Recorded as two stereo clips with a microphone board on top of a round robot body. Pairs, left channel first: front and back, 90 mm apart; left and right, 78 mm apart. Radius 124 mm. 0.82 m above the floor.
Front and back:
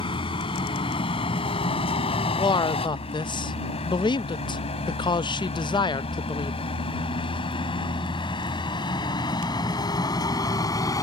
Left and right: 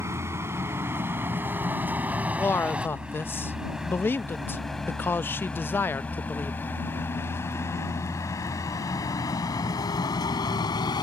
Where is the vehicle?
30° right; by 11.0 s 55° left.